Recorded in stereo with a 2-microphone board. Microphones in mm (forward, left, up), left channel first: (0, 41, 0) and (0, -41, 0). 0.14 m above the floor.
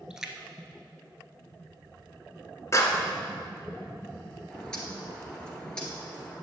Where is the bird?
10° left (ahead or behind), 1.8 m.